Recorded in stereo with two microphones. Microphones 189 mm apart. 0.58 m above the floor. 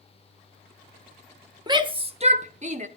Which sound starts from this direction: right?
A shout, at 1.7 s.